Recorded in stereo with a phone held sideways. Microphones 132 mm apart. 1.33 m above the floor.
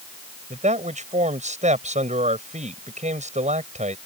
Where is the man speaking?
70° right (ahead or behind).